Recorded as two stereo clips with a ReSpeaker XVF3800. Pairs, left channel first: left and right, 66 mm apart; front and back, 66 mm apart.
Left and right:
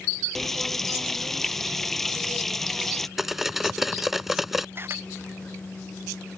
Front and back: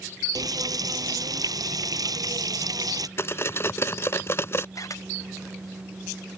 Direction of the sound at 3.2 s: 5° right.